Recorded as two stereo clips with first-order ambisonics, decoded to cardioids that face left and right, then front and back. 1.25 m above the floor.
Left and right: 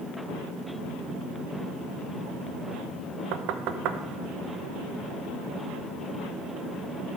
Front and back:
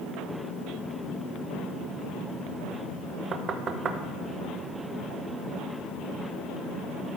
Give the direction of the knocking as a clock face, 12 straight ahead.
4 o'clock.